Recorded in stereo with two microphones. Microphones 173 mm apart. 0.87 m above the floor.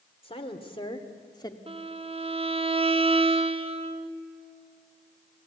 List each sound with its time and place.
0.2 s a woman speaking: 35° left (ahead or behind), 2.5 m; by 1.6 s 20° left (ahead or behind), 1.6 m
1.7 s a violin: 35° right (ahead or behind), 1.2 m